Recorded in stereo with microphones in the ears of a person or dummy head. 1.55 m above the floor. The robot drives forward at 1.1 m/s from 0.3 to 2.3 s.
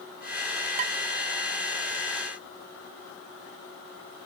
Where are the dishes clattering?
40° right (ahead or behind).